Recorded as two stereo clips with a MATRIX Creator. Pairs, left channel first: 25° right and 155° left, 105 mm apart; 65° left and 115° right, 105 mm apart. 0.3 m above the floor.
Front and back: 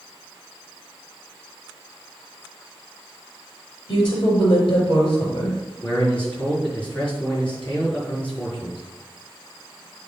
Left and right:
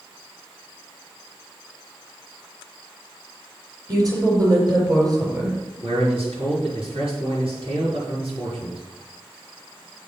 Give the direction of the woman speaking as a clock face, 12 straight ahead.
2 o'clock.